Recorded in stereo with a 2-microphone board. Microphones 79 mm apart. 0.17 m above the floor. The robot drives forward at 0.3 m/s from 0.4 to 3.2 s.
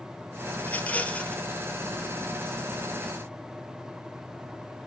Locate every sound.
0.6 s a rattle: 20° left (ahead or behind), 1.0 m; by 1.4 s 15° left (ahead or behind), 1.2 m